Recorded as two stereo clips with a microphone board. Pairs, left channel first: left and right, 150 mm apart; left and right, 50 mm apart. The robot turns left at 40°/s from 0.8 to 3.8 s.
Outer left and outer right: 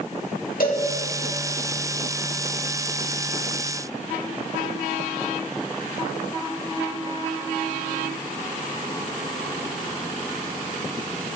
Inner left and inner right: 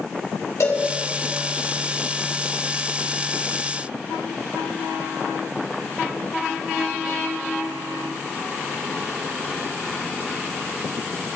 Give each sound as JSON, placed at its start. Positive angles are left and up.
{"t": 0.6, "sound": "a cowbell", "side_deg": 70, "distance_m": 3.0}